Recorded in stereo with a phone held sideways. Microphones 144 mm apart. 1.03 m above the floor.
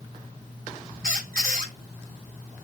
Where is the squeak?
80° right, 1.4 m.